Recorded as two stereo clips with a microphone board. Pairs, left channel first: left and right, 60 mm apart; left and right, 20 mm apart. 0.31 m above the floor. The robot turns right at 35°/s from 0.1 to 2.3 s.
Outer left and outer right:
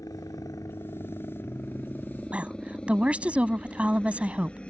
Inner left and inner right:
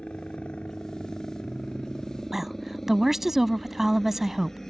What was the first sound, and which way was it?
A helicopter, 75° left (ahead or behind).